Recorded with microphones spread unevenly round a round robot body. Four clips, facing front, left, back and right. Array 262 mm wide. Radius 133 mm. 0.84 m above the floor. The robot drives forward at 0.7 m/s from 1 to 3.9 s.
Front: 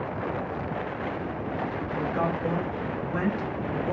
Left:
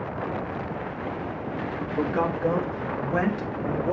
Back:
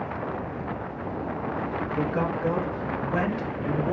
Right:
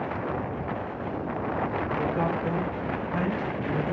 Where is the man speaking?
130° left, 4 m; by 3.9 s 140° left, 5 m.